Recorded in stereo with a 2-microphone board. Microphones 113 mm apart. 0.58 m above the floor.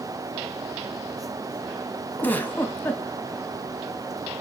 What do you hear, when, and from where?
2.2 s a giggle: 15° left (ahead or behind), 1.1 m